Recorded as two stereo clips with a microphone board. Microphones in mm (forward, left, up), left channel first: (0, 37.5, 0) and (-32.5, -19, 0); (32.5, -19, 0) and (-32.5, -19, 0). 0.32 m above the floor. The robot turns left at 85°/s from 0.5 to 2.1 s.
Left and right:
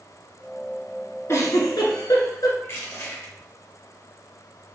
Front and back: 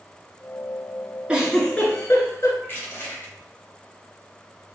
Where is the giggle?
110° left, 1.1 m; by 2.5 s 40° left, 1.1 m.